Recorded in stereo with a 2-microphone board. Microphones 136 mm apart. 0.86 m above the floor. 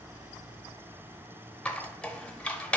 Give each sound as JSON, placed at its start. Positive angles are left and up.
{"t": 1.6, "sound": "a squeak", "side_deg": 10, "distance_m": 0.6}